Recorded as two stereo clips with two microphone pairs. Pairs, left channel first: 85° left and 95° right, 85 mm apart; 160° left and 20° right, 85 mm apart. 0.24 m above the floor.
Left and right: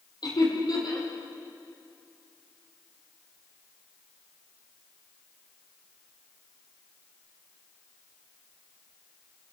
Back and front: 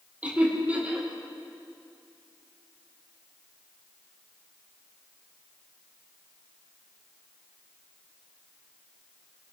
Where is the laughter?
55° left, 8 m.